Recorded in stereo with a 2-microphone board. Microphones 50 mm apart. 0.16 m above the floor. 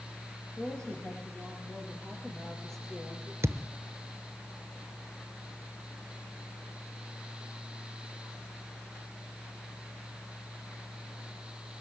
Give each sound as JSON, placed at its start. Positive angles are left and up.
{"t": 0.6, "sound": "a woman speaking", "side_deg": 15, "distance_m": 6.0}
{"t": 3.4, "sound": "a thud", "side_deg": -70, "distance_m": 0.9}